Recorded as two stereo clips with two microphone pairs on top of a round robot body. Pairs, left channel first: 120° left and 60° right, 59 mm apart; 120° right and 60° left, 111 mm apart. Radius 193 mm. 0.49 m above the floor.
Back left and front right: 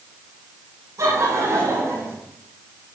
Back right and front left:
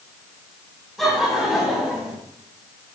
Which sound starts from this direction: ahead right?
Laughter, at 1.0 s.